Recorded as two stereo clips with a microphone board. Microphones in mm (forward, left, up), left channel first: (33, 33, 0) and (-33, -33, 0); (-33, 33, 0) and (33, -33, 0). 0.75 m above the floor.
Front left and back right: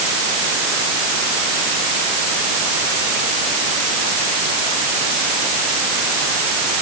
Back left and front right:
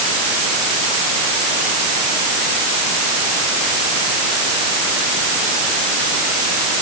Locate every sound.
Only background noise.